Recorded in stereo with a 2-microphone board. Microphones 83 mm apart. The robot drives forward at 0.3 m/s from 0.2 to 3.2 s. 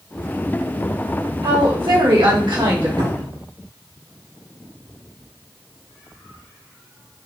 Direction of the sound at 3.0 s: 70° right (ahead or behind).